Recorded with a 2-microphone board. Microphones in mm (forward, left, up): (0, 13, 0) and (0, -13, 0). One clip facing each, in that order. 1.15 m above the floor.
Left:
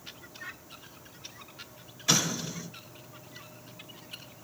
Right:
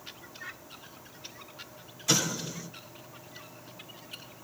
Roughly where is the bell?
I don't hear a bell.